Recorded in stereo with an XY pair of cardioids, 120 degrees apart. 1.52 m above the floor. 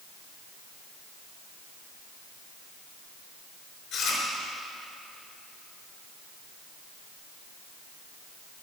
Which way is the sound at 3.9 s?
65° left.